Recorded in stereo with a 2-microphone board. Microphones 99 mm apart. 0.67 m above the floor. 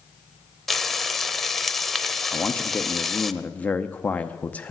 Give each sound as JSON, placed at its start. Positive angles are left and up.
{"t": 0.7, "sound": "frying", "side_deg": 0, "distance_m": 0.6}
{"t": 2.3, "sound": "a man speaking", "side_deg": 15, "distance_m": 0.6}